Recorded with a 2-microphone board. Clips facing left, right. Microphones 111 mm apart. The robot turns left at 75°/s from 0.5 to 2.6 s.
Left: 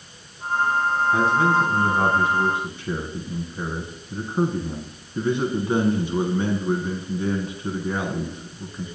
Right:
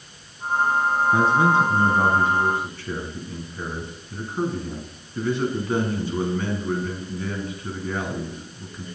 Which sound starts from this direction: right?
A man speaking, at 1.1 s.